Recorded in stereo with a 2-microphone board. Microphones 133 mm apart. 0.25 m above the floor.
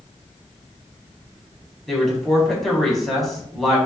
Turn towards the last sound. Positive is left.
turn(degrees=0)  # may be behind; listen again after turning